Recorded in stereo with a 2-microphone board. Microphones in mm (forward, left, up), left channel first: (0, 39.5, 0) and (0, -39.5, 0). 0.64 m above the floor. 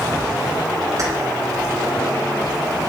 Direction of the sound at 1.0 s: 50° right (ahead or behind).